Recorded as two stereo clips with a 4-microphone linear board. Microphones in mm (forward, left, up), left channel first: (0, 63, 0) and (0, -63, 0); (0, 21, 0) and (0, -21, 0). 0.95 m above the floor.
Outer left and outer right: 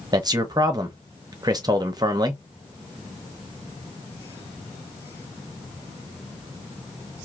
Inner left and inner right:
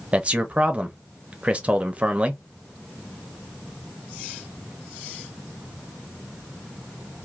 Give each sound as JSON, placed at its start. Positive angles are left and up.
{"t": 0.1, "sound": "a man speaking", "side_deg": -30, "distance_m": 0.8}